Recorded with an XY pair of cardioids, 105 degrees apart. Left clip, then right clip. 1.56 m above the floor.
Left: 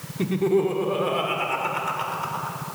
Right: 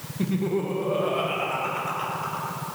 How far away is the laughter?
About 1.3 m.